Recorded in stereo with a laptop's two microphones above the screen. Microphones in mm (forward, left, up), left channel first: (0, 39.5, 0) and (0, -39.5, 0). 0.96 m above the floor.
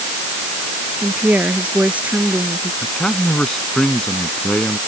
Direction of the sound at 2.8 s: 5° left (ahead or behind).